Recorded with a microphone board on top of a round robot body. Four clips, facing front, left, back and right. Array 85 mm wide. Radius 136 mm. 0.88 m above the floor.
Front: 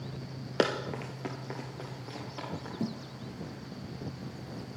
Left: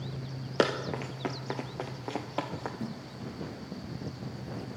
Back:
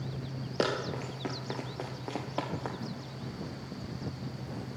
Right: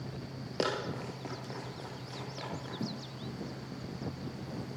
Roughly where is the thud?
Ahead.